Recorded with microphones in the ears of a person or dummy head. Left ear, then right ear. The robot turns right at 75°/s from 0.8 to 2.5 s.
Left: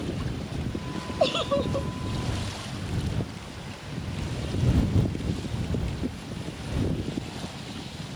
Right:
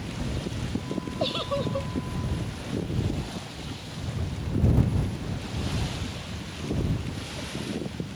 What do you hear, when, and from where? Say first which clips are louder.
1.2 s a giggle: left 4 dB; 140° left; by 1.9 s 170° right